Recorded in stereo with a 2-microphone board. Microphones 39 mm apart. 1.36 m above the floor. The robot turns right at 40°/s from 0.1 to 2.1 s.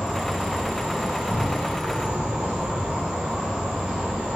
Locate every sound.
0.0 s an insect: 20° right (ahead or behind), 1.1 m